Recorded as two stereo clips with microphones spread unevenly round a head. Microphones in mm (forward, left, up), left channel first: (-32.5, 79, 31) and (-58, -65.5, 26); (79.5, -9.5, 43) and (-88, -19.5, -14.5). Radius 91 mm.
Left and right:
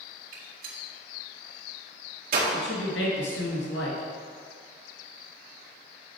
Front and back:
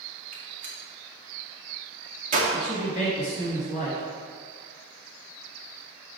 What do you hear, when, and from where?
0.3 s a gunshot: 125° right, 1.9 m
2.5 s a man speaking: 60° left, 2.5 m